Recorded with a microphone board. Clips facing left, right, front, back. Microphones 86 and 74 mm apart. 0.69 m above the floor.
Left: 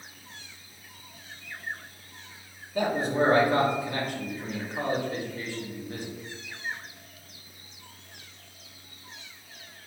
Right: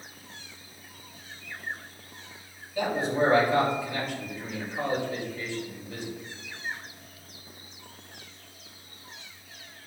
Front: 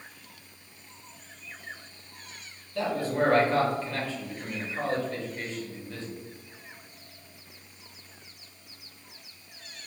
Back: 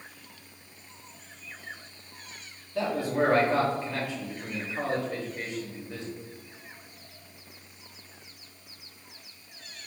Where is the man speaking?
115° left, 1.3 m.